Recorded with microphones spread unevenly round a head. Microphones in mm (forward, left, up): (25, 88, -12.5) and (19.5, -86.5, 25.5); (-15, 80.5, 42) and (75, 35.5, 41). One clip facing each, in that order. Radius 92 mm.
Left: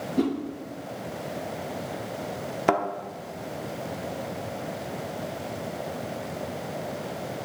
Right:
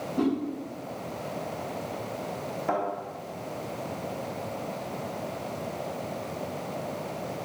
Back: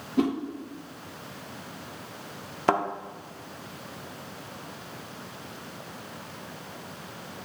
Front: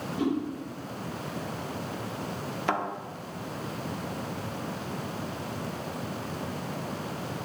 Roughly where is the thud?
Left.